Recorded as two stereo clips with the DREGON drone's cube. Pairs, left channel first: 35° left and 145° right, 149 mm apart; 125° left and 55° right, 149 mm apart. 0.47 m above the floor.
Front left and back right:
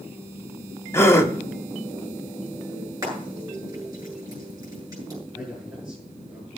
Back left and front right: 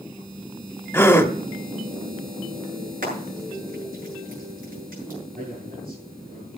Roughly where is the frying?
Right.